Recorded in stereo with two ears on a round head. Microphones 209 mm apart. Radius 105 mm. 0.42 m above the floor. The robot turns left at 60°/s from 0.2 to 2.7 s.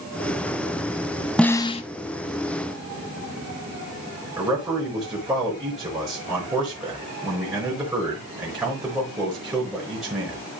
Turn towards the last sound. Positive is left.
turn(degrees=-10)  # may be behind; listen again after turning